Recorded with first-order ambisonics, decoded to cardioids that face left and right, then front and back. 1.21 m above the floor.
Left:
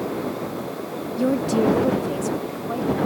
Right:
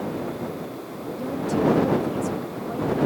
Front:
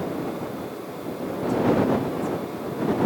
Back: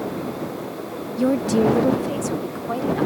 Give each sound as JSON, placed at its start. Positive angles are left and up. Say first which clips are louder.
{"t": 1.2, "sound": "a woman speaking", "louder": "left 4 dB, back 6 dB", "azimuth_deg": 145}